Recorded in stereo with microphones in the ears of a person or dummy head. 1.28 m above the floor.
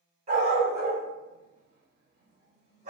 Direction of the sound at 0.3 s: 40° right (ahead or behind).